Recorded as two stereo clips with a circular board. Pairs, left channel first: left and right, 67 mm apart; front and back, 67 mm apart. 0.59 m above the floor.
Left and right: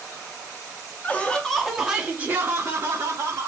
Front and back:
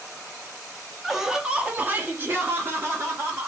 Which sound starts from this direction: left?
Laughter, at 1.0 s.